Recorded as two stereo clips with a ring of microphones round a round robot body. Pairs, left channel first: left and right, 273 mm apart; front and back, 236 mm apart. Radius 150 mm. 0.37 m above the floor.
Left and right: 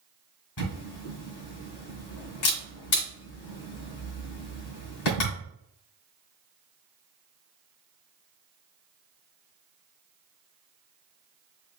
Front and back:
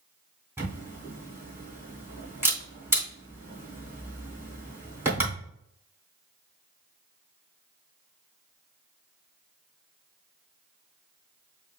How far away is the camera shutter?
About 2.5 m.